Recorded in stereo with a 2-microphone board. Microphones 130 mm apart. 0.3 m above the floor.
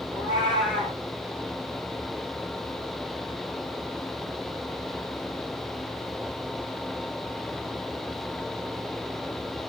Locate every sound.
0.1 s a cat meowing: 10° left (ahead or behind), 1.9 m